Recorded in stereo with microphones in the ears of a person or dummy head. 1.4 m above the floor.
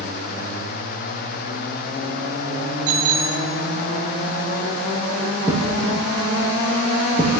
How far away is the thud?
About 7 m.